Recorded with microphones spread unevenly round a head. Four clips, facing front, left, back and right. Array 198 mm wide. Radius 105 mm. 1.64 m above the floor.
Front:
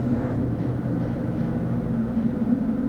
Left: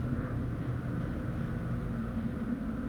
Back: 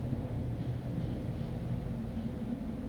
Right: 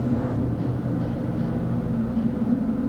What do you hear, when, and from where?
0.0 s a machine running: 40° right